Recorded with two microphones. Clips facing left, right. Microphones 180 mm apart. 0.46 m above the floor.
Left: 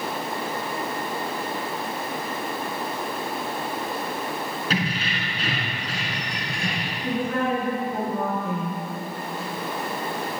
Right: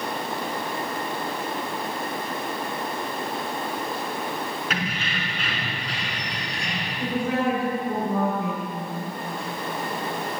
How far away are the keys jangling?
About 4 m.